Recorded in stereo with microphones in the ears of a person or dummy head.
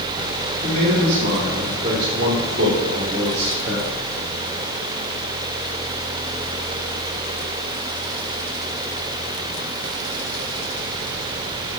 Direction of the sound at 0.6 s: 50° right (ahead or behind).